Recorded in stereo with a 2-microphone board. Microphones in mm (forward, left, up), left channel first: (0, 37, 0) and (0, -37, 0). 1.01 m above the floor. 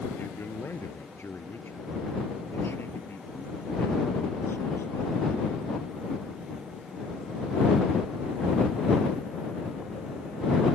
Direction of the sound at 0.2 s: 30° left (ahead or behind).